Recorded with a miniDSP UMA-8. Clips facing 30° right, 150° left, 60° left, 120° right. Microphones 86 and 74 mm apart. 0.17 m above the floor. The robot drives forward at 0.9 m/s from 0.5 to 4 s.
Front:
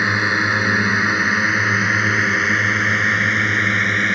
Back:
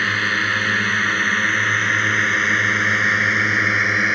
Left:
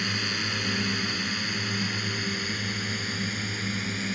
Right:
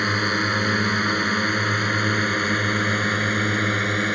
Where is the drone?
100° right; by 4.2 s 125° right.